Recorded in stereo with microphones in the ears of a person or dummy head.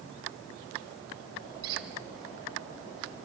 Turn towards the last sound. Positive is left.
turn(degrees=-25)  # may be behind; listen again after turning